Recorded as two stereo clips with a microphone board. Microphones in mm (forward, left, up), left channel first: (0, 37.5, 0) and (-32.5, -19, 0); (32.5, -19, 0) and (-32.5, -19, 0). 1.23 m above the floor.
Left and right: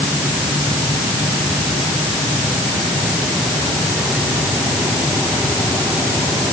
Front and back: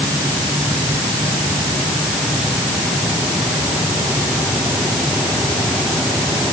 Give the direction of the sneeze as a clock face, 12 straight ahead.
I don't hear a sneeze.